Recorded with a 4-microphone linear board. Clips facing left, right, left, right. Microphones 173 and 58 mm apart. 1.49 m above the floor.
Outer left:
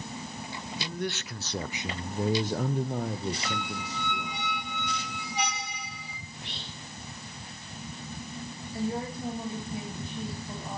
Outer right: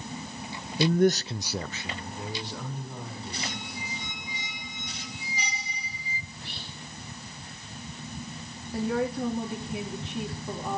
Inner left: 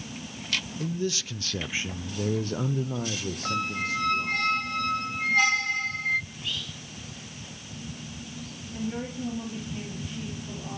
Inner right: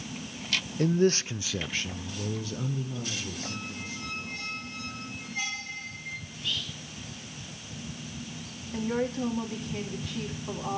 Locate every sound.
0.8 s a man speaking: 60° right (ahead or behind), 0.8 m; by 4.4 s 65° left (ahead or behind), 2.5 m
3.5 s a squeak: 65° left (ahead or behind), 0.8 m
6.3 s whispering: 20° left (ahead or behind), 7 m
8.7 s a woman speaking: 80° right, 4.5 m